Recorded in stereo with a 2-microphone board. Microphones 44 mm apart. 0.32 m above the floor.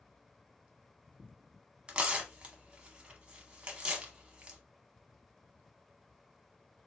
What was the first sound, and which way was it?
Tearing paper, 20° right (ahead or behind).